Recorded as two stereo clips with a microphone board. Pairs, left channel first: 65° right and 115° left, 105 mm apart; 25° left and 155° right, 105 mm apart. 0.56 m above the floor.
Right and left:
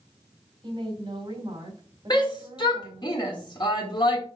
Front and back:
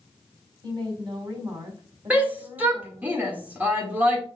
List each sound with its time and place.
0.6 s a woman speaking: 155° left, 3 m
2.1 s a shout: 90° right, 1.6 m